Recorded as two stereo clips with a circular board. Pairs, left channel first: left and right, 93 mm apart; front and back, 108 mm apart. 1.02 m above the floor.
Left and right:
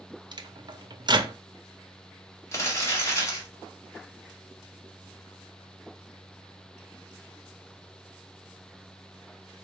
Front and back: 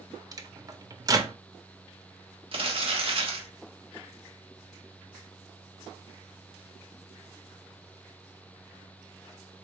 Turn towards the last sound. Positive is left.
turn(degrees=150)